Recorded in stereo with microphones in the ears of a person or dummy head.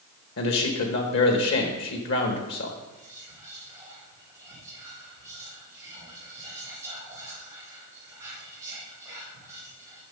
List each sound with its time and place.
0.4 s a man speaking: 70° left (ahead or behind), 1.4 m
2.9 s whispering: 10° right (ahead or behind), 4 m